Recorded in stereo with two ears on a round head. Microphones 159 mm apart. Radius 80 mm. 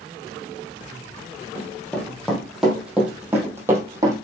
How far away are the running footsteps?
About 2.5 m.